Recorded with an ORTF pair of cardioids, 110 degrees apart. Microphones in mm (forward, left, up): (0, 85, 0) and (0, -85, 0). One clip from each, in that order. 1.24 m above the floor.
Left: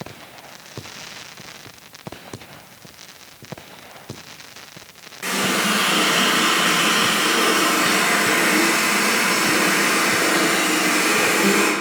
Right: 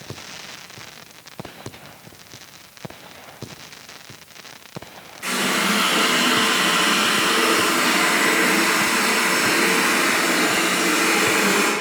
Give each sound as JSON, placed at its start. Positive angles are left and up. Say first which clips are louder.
{"t": 5.2, "sound": "a running tap", "louder": "even", "azimuth_deg": 30, "distance_m": 1.1}